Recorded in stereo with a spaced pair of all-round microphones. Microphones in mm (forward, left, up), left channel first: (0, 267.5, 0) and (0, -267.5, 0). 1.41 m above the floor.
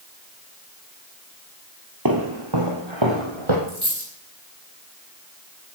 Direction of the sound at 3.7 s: 60° right (ahead or behind).